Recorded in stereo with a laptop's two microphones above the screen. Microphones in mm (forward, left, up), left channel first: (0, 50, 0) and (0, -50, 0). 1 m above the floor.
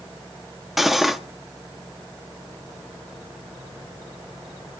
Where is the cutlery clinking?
Centre (ahead or behind), 0.6 m.